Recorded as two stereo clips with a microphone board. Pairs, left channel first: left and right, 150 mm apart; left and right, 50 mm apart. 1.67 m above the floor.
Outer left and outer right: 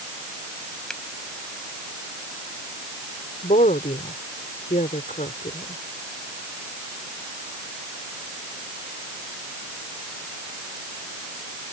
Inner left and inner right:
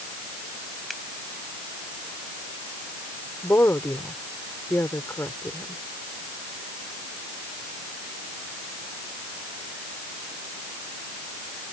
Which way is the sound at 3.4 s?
65° left (ahead or behind).